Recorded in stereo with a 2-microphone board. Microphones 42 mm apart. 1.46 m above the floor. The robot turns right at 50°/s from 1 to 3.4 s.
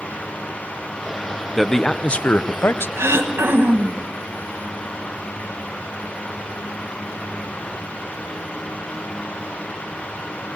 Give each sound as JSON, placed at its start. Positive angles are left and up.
{"t": 1.6, "sound": "a man speaking", "azimuth_deg": 0, "distance_m": 0.7}
{"t": 3.0, "sound": "throat clearing", "side_deg": -85, "distance_m": 1.4}